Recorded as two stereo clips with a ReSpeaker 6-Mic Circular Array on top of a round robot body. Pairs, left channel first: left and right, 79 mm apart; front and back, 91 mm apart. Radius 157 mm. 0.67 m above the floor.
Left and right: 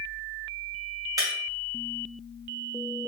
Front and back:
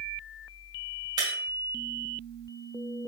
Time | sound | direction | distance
1.2 | breaking glass | 135° right | 2.5 m